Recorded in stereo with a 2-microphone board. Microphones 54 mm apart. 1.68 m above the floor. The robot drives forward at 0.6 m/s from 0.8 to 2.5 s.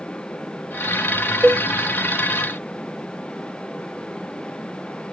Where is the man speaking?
No man speaking in this recording.